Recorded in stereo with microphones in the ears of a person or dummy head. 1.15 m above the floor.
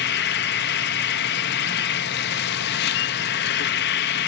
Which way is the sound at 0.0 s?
60° left (ahead or behind).